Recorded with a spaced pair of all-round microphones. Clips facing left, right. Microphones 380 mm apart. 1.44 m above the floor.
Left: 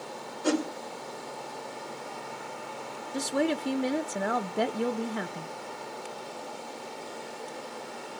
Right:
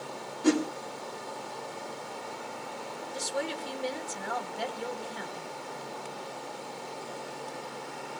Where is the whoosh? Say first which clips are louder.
Right 2 dB; 30° right (ahead or behind), 2.5 m.